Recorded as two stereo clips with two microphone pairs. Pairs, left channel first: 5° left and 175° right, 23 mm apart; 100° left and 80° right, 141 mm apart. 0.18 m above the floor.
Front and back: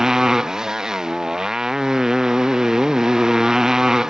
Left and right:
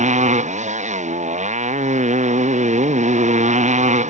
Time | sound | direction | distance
0.0 | a motorcycle | 110° right | ?